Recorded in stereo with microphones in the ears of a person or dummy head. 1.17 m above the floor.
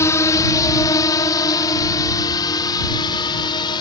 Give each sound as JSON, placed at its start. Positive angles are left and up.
{"t": 0.0, "sound": "a drone", "side_deg": 15}